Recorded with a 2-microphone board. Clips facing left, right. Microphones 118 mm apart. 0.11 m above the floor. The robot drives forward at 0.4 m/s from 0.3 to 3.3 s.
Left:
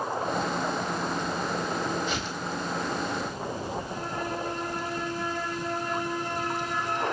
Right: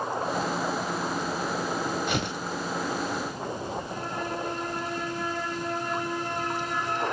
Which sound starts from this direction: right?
Tearing paper, at 2.1 s.